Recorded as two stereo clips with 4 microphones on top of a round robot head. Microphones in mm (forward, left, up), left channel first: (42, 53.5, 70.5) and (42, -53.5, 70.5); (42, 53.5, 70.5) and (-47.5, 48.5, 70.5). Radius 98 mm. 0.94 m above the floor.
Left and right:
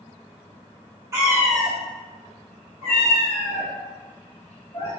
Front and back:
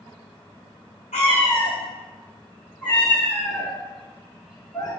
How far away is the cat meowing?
About 0.8 m.